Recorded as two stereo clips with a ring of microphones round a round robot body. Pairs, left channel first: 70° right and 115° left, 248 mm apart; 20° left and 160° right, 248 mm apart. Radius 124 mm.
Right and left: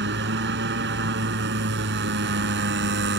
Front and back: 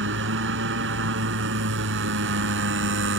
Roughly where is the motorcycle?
Behind.